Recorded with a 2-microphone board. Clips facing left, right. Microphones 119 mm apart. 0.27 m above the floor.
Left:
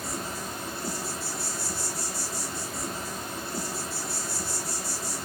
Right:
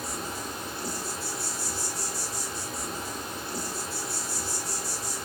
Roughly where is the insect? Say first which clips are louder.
Left 1 dB; centre.